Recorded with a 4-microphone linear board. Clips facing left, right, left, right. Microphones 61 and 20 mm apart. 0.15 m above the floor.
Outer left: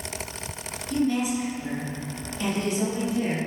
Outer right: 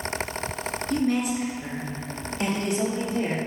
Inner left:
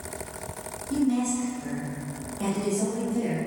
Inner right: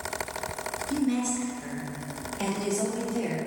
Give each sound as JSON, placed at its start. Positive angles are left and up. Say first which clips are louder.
{"t": 0.9, "sound": "a woman speaking", "louder": "even, inner left 3 dB", "side_deg": -50, "distance_m": 2.5}